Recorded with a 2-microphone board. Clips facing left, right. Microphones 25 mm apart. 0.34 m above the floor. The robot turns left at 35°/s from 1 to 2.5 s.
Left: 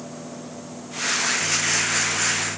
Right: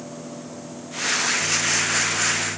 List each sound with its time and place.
Only background noise.